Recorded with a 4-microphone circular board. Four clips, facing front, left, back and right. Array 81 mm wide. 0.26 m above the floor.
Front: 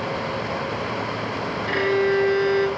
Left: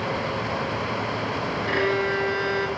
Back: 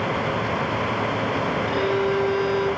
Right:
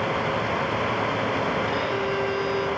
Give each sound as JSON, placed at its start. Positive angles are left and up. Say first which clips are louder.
{"t": 1.7, "sound": "a violin", "louder": "left 2 dB, front 4 dB", "azimuth_deg": 50, "distance_m": 3.5}